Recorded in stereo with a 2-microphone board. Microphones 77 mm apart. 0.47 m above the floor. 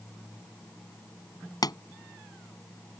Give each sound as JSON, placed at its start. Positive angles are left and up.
{"t": 1.6, "sound": "a pop", "side_deg": 60}